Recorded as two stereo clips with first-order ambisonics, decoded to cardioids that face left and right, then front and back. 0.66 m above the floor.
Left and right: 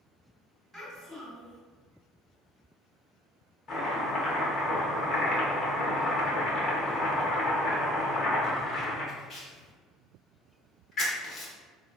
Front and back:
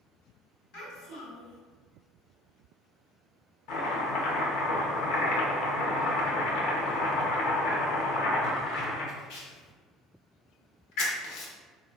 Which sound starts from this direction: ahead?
A child speaking, at 0.7 s.